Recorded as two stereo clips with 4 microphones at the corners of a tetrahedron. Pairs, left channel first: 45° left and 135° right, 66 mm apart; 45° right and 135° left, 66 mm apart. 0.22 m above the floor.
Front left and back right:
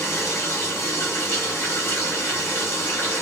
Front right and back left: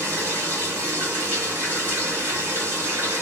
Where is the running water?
90° left, 1.7 m.